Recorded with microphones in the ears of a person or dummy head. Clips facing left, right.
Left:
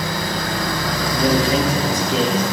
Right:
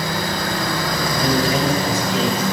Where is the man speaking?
25° left (ahead or behind), 4.5 m.